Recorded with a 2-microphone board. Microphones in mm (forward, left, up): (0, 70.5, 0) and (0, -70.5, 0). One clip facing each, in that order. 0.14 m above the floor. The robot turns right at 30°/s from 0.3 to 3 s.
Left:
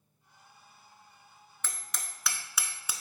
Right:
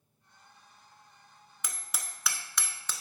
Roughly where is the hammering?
Centre.